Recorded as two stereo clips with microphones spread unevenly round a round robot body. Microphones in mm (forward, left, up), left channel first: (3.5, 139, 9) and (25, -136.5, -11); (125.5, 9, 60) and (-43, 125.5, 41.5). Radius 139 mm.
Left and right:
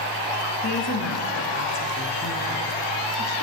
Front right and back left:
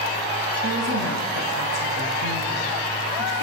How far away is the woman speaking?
About 5 m.